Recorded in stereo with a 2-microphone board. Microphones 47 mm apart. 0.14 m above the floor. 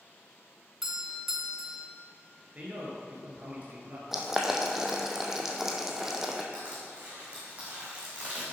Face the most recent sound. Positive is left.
turn(degrees=-25)  # may be behind; listen again after turning